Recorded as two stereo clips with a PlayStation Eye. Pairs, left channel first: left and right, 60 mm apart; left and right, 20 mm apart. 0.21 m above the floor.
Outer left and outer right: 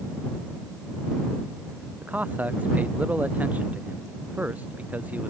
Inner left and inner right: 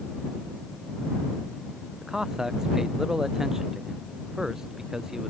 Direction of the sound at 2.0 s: 25° right (ahead or behind).